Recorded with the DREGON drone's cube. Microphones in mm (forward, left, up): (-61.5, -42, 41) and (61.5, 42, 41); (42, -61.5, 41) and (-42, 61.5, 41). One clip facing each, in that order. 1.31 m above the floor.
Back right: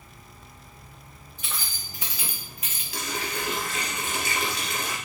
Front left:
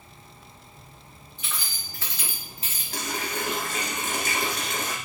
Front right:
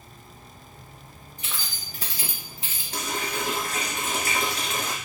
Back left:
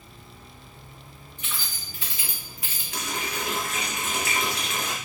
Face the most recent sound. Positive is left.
turn(degrees=0)